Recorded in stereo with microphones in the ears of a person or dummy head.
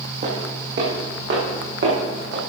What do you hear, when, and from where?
0.2 s footsteps: 55° right (ahead or behind), 3.5 m; by 2.5 s 75° right (ahead or behind), 4.5 m